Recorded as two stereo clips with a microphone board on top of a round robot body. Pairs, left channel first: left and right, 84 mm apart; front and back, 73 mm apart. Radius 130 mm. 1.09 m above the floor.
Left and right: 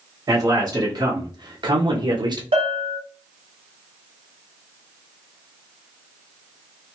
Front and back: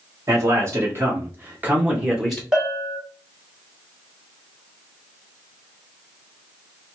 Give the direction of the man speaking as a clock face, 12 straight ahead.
5 o'clock.